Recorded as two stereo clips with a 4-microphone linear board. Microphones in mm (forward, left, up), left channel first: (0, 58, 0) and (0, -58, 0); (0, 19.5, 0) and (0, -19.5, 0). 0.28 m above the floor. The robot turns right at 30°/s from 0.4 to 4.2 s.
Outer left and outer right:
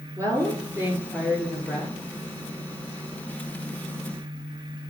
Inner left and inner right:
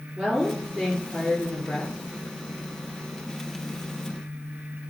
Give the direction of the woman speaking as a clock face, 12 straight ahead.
1 o'clock.